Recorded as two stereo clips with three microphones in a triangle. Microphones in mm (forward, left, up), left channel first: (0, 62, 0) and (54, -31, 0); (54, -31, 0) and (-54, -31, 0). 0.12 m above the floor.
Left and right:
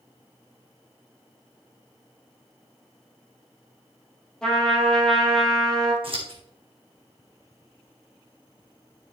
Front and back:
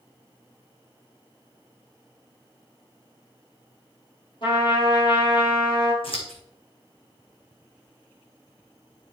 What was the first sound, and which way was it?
A trumpet, 35° left.